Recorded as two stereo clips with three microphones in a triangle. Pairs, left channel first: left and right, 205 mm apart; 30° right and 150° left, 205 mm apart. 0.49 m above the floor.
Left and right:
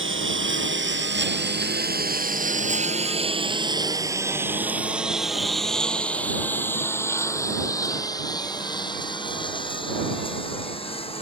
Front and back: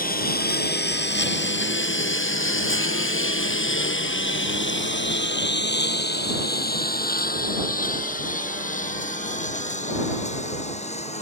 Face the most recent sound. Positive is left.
turn(degrees=25)